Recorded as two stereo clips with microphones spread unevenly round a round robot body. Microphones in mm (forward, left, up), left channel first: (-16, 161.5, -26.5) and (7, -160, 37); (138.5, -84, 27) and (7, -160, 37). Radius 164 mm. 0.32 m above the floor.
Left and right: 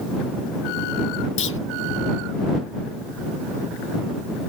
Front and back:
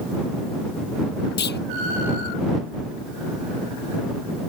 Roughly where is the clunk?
Ahead left.